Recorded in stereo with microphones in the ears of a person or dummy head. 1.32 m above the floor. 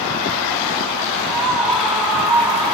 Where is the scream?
10° left (ahead or behind), 1.5 m; by 2.8 s 5° left (ahead or behind), 3 m.